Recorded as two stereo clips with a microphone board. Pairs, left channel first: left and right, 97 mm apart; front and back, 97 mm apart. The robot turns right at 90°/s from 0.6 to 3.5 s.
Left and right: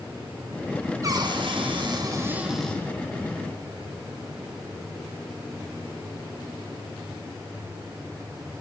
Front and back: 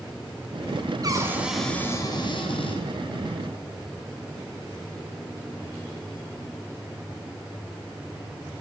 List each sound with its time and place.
1.0 s a cupboard door: 140° right, 3 m; by 2.8 s 25° left, 3 m